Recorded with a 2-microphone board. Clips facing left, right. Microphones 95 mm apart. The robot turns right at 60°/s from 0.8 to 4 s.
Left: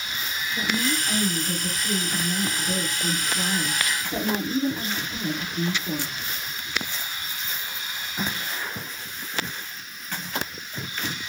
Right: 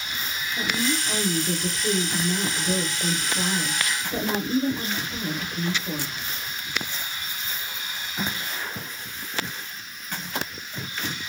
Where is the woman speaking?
175° right, 2.0 m; by 6.2 s 15° left, 2.0 m.